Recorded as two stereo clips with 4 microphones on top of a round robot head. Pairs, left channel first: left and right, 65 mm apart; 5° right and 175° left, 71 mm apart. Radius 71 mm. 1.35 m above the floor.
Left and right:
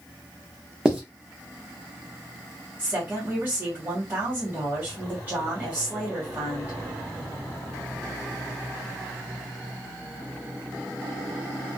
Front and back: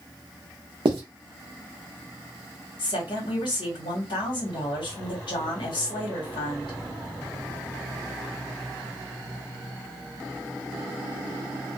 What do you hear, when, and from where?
0.8 s writing: 165° right, 0.7 m
2.8 s a woman speaking: 20° right, 1.3 m